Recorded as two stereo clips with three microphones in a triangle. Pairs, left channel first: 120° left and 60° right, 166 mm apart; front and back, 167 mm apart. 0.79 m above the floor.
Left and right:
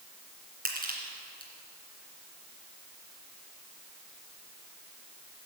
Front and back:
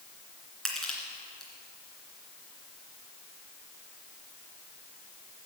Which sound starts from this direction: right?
Crushing, at 0.7 s.